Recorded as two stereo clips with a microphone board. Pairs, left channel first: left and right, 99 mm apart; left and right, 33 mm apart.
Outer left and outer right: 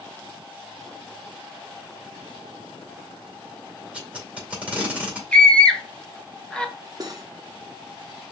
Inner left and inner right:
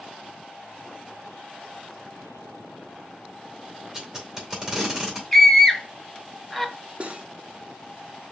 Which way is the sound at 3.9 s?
10° right (ahead or behind).